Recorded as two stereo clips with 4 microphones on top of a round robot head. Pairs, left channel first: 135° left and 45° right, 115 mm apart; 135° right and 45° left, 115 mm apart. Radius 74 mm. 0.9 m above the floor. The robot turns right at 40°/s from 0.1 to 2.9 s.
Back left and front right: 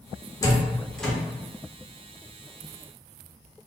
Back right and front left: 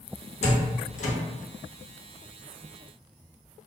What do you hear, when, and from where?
0.4 s a door slam: 165° right, 0.7 m; by 1.1 s 135° right, 0.7 m